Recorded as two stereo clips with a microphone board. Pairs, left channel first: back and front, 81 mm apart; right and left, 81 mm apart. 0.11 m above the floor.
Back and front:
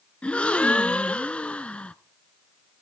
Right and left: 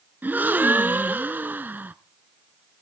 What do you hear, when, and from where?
0.2 s a gasp: 125° left, 0.5 m